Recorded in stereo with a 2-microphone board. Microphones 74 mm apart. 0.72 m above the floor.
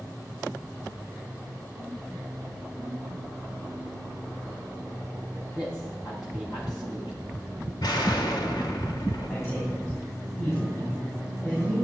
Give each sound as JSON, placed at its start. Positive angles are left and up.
{"t": 5.5, "sound": "a man speaking", "side_deg": 70, "distance_m": 6.0}
{"t": 7.8, "sound": "an explosion", "side_deg": 75, "distance_m": 1.4}
{"t": 9.3, "sound": "a man speaking", "side_deg": 35, "distance_m": 4.5}